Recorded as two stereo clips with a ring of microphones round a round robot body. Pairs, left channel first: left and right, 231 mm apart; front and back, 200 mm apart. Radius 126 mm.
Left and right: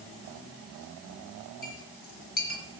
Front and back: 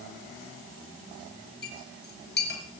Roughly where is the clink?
Ahead left.